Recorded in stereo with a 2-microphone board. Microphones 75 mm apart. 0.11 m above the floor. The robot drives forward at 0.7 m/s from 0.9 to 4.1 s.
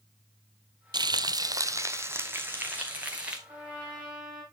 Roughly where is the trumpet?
Centre.